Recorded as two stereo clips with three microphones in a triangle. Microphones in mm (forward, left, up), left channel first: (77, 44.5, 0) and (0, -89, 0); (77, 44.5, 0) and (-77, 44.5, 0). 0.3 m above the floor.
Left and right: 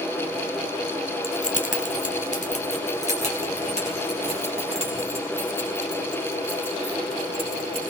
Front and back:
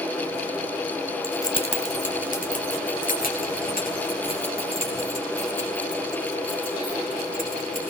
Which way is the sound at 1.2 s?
85° left.